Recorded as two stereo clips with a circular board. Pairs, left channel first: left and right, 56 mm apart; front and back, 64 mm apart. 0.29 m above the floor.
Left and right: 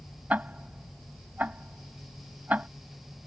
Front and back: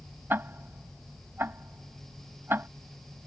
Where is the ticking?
140° right.